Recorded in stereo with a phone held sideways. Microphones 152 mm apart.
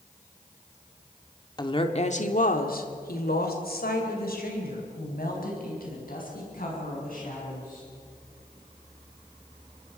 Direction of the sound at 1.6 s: 30° left (ahead or behind).